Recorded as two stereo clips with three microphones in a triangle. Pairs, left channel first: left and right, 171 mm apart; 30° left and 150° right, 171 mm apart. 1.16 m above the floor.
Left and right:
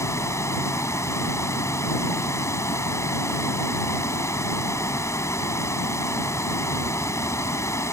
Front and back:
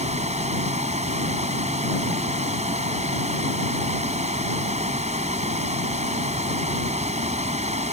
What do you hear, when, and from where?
0.0 s running water: 165° left